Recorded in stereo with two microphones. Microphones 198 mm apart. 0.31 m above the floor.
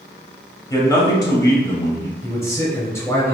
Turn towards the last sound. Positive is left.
turn(degrees=15)  # may be behind; listen again after turning